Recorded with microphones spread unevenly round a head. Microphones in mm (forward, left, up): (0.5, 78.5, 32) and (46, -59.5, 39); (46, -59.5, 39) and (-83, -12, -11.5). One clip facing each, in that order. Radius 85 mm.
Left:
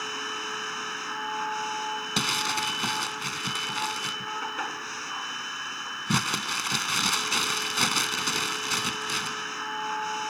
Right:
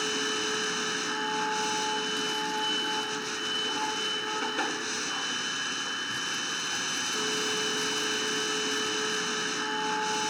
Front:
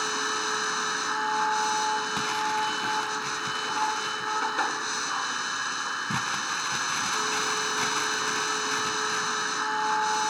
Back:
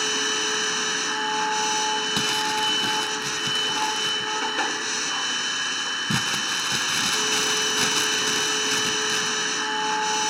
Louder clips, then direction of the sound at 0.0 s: Right 5 dB, back 3 dB; 130° right.